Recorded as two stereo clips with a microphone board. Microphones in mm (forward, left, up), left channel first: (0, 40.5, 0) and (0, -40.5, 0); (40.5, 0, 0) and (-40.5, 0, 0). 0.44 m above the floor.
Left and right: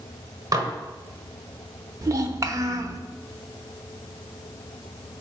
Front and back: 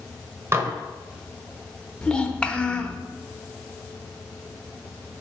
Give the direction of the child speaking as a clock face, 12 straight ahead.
2 o'clock.